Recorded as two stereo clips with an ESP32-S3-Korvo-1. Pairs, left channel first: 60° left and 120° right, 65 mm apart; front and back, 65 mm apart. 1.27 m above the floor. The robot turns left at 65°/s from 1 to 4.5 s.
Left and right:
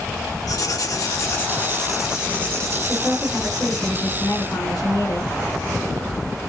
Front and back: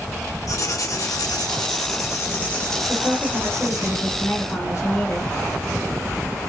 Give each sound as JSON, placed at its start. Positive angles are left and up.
{"t": 0.5, "sound": "writing", "azimuth_deg": 30, "distance_m": 1.2}
{"t": 2.9, "sound": "a woman speaking", "azimuth_deg": 155, "distance_m": 3.5}